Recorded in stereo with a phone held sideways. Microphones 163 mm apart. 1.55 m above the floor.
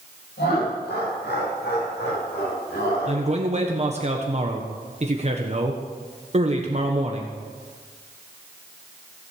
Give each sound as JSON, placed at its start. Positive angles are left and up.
{"t": 0.4, "sound": "laughter", "side_deg": 85, "distance_m": 8.5}
{"t": 3.1, "sound": "a man speaking", "side_deg": -40, "distance_m": 1.3}